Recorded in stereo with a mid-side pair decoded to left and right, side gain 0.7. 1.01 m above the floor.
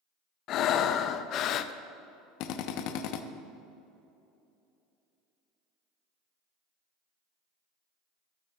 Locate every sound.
0.5 s breathing: 50° left, 0.5 m
2.4 s a drill: 65° left, 0.7 m